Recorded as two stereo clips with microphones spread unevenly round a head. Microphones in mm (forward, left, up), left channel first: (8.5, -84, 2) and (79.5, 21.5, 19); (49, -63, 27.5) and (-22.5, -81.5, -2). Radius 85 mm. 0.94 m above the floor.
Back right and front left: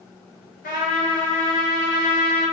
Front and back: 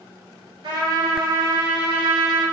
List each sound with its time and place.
0.6 s a trumpet: 155° right, 3.5 m